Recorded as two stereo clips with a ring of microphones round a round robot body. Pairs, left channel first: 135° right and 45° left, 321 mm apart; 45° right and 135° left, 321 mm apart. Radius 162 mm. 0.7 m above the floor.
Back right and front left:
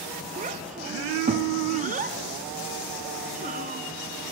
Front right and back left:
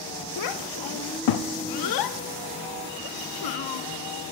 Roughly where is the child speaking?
Ahead right.